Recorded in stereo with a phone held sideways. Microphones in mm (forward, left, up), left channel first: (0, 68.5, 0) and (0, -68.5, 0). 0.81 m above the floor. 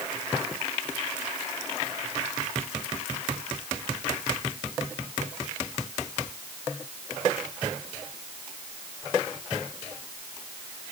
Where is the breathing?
I don't hear breathing.